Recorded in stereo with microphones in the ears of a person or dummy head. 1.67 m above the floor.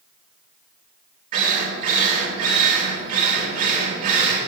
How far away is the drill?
About 3.5 m.